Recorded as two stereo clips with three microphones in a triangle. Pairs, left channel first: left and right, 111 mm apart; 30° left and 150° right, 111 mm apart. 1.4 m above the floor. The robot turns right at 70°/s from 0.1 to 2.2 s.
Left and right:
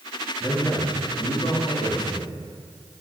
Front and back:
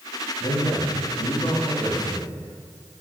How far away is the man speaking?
About 2.5 m.